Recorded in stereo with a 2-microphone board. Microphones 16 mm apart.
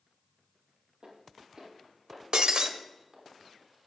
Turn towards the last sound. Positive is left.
turn(degrees=-65)  # may be behind; listen again after turning